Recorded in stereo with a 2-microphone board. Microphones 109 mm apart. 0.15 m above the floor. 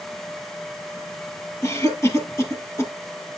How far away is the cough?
About 3 m.